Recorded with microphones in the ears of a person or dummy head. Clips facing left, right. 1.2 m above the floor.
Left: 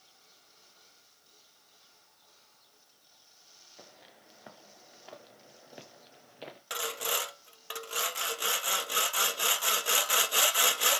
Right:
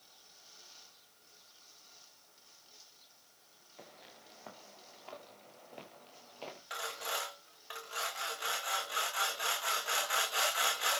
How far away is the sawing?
About 1.4 m.